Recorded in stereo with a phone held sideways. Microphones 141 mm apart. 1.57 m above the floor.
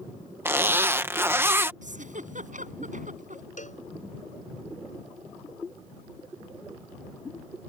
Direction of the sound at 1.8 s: 70° right (ahead or behind).